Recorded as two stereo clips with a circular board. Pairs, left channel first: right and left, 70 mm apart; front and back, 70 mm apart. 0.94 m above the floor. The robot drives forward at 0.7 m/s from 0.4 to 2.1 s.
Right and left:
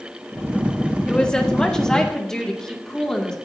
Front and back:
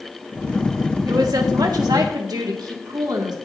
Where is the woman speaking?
165° right, 1.7 m; by 3.4 s 170° right, 2.5 m.